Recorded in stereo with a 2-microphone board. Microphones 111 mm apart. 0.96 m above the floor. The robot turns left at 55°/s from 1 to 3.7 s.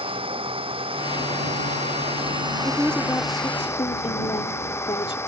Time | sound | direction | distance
0.0 | an engine running | 55° right | ?
2.6 | a woman speaking | 175° right | ?